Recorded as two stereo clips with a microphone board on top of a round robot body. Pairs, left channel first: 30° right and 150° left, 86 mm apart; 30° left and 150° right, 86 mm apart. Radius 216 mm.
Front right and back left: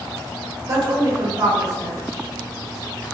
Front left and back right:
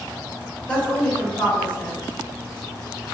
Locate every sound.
0.7 s a woman speaking: 105° left, 1.3 m